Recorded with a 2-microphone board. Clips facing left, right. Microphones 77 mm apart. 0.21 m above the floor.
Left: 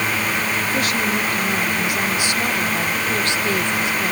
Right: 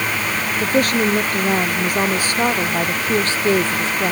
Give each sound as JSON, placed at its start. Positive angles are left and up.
{"t": 0.6, "sound": "a woman speaking", "side_deg": -45}